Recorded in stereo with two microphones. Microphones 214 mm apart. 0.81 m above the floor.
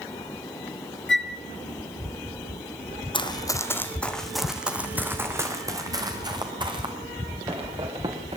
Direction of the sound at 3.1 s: 25° left (ahead or behind).